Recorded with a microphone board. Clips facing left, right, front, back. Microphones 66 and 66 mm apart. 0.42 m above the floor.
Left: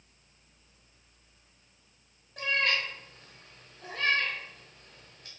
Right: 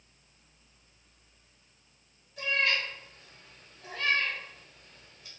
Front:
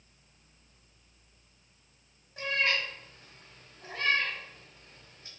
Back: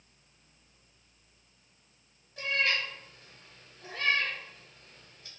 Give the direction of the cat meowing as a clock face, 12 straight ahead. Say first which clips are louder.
Even, even; 10 o'clock.